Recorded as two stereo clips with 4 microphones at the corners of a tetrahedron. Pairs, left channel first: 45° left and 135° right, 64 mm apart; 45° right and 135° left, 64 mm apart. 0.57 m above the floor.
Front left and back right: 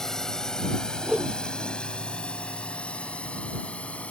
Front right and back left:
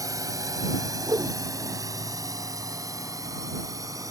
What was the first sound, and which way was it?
A drone, 125° left.